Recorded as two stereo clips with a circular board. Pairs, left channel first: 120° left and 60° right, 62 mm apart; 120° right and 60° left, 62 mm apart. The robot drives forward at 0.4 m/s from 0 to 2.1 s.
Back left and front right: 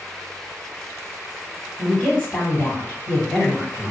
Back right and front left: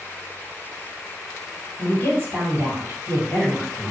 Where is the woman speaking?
170° right, 2.0 m; by 3.9 s 175° right, 2 m.